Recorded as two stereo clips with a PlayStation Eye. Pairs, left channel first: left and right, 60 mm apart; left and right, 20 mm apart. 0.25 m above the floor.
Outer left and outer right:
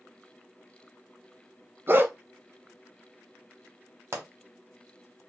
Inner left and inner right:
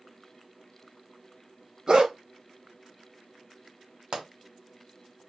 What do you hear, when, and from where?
1.9 s a dog barking: 35° right (ahead or behind), 0.8 m
4.1 s a pop: 40° right (ahead or behind), 1.2 m